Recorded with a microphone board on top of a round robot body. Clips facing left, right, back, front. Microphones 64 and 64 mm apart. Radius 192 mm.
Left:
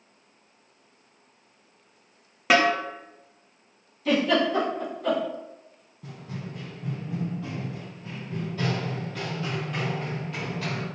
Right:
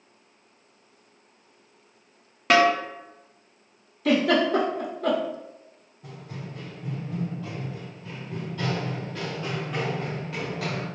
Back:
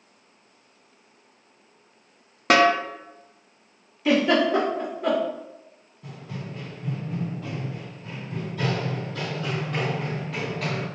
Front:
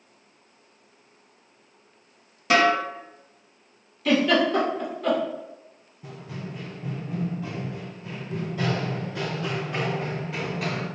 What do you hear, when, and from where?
2.5 s a snare drum: 175° left, 0.8 m
4.0 s a giggle: 105° right, 1.2 m
6.0 s running footsteps: 85° left, 1.9 m; by 10.9 s 85° right, 1.3 m